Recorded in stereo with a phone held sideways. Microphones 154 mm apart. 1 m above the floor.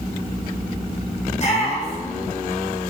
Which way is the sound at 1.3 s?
45° left (ahead or behind).